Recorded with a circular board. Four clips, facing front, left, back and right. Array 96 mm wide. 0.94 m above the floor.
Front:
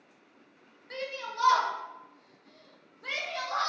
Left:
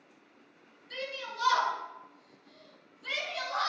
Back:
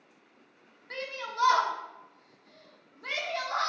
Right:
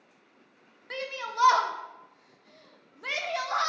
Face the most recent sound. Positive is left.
turn(degrees=-100)